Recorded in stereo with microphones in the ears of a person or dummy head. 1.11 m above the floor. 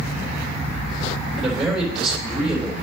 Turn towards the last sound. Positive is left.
turn(degrees=0)  # may be behind; listen again after turning